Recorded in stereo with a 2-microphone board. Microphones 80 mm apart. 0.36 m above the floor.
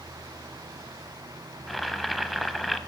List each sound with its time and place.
1.7 s boiling: centre (ahead or behind), 0.7 m